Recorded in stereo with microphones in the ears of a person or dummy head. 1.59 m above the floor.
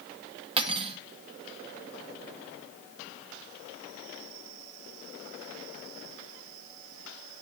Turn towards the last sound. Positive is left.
turn(degrees=-25)  # may be behind; listen again after turning